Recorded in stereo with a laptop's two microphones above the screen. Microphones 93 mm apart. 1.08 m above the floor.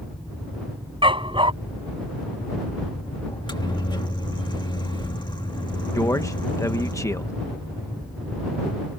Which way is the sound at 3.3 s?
55° left (ahead or behind).